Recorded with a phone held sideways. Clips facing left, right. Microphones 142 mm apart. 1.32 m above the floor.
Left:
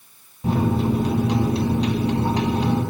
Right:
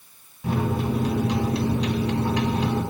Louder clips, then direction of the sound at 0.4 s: Left 4 dB; 35° left (ahead or behind).